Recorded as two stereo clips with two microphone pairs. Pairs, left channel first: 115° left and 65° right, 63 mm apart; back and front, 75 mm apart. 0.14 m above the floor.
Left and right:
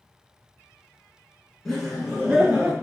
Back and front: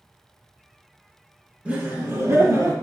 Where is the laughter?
40° left, 1.1 m; by 2.7 s straight ahead, 1.7 m.